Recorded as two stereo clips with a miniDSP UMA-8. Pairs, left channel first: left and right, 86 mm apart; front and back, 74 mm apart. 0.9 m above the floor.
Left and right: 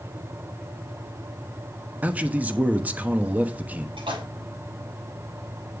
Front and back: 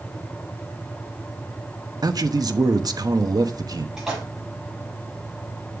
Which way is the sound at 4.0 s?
95° right.